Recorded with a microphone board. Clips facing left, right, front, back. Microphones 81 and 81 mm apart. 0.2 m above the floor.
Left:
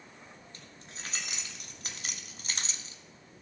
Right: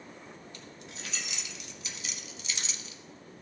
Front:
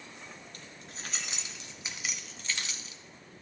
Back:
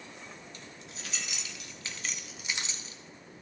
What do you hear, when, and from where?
0.5 s keys jangling: 35° left, 2.0 m; by 3.0 s 140° left, 1.1 m